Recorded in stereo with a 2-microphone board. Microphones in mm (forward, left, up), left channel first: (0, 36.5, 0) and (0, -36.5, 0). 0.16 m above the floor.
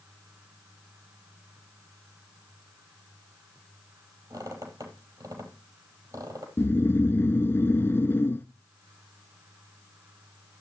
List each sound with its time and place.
4.3 s a squeak: 55° right (ahead or behind), 4 m
6.6 s snoring: 30° left (ahead or behind), 0.8 m